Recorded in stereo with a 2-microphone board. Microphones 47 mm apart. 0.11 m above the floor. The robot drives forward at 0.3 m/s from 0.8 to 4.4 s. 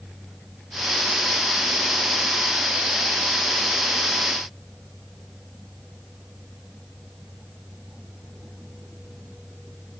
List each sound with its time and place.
Only background noise.